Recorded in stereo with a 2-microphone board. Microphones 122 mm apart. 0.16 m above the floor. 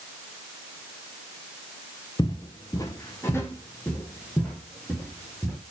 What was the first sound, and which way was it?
Footsteps, 40° left (ahead or behind).